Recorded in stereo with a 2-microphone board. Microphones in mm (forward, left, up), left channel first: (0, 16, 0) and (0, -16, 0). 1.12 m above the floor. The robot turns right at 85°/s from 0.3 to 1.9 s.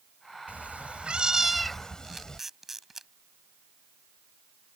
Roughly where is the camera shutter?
Centre.